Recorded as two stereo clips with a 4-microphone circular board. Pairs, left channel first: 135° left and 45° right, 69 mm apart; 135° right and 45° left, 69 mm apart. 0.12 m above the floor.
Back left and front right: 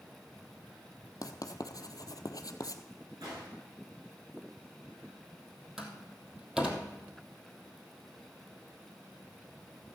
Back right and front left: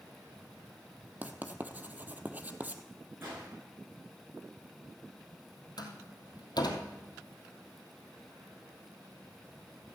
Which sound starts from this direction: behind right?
A door slam, at 5.8 s.